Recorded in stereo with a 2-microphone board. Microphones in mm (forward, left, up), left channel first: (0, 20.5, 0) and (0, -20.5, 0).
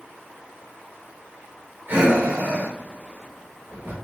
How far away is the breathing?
About 2.5 m.